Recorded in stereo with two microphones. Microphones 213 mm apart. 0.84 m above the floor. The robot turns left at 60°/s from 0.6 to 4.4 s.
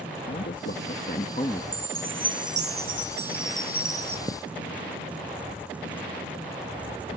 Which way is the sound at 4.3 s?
25° right (ahead or behind).